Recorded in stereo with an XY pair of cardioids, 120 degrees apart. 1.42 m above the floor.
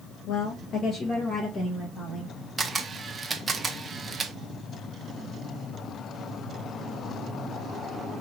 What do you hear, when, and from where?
0.3 s a woman speaking: 60° left, 0.9 m; by 2.3 s 25° left, 2.5 m
2.6 s a camera shutter: 30° right, 0.6 m